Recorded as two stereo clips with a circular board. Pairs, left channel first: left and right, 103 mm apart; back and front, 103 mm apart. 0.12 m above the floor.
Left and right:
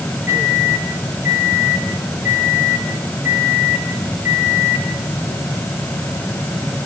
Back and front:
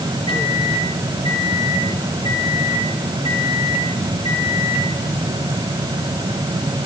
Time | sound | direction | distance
0.3 | a microwave | 160° right | 4 m